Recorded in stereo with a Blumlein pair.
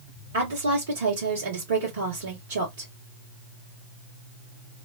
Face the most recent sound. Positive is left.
turn(degrees=-65)